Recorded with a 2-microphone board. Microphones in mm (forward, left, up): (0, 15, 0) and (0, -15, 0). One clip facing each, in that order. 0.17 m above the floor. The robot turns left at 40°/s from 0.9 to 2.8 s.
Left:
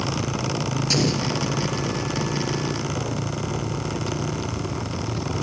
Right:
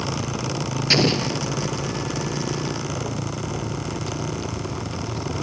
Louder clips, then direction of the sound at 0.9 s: Right 4 dB; 40° right (ahead or behind).